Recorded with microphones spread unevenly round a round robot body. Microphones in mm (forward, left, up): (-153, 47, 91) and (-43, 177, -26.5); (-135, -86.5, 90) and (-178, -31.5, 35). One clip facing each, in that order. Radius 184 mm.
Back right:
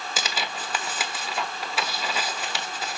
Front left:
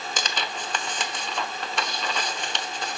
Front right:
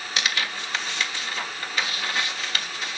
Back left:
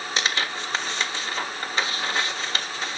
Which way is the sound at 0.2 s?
135° left.